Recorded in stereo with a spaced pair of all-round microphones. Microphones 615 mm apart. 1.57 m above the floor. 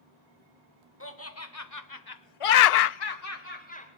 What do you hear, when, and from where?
1.0 s laughter: 20° left (ahead or behind), 2 m; by 3.9 s 10° left (ahead or behind), 1.4 m